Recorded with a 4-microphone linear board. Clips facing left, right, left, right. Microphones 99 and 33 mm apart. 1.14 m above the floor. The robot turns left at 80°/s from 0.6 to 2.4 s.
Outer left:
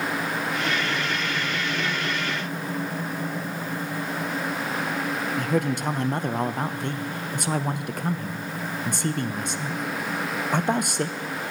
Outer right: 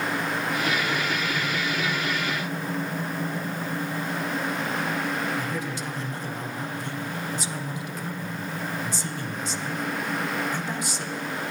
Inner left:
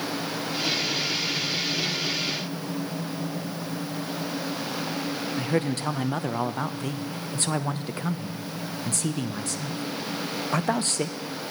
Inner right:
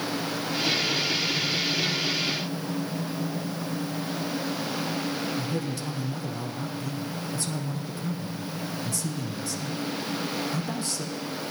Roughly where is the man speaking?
Left.